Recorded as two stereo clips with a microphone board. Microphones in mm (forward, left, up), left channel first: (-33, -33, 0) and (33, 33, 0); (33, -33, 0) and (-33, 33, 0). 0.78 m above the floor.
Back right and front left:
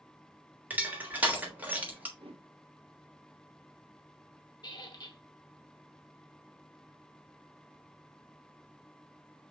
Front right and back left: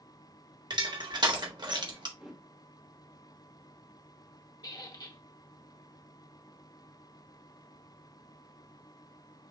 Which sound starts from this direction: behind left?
Crushing, at 0.7 s.